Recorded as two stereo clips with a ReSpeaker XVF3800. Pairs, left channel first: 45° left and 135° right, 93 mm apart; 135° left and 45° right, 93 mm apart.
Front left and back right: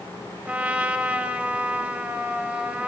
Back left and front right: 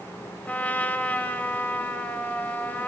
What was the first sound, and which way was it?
A trumpet, 175° left.